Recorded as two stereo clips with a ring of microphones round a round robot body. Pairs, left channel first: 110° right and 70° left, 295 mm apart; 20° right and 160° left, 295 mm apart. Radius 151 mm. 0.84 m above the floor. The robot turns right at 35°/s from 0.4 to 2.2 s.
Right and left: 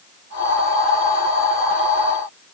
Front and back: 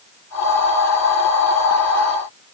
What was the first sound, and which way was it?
Only background noise.